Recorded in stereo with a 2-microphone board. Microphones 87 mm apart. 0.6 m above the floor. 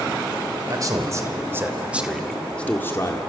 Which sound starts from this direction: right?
A man speaking, at 0.7 s.